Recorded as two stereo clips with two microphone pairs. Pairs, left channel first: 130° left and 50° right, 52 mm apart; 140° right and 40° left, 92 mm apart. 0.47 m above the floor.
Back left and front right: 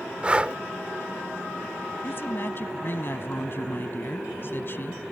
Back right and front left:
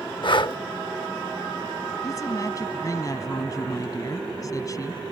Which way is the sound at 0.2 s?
115° right.